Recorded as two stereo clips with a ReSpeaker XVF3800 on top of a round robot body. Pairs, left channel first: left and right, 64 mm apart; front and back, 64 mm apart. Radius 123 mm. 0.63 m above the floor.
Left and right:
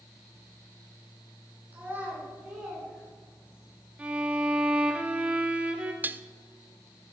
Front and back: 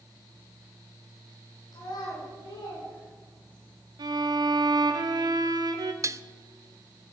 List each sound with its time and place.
1.7 s a child speaking: 25° right, 6.5 m; by 3.7 s 5° right, 6.5 m
4.0 s a violin: 160° right, 1.1 m
6.0 s dishes clattering: 145° right, 0.6 m